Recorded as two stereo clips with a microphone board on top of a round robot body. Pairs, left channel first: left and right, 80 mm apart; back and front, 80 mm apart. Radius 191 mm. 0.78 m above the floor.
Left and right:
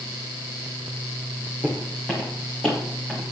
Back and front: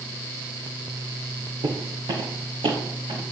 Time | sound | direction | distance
1.6 | footsteps | 15° left | 2.5 m